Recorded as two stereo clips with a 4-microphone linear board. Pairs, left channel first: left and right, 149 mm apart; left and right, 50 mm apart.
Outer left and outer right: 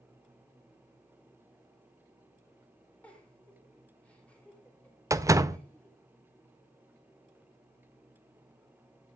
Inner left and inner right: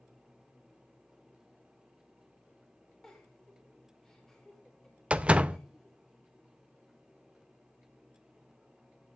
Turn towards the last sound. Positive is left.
turn(degrees=-20)  # may be behind; listen again after turning